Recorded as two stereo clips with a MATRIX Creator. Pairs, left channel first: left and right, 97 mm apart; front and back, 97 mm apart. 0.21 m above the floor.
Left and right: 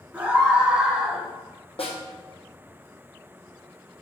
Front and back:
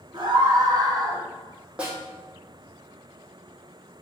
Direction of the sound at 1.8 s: 100° left.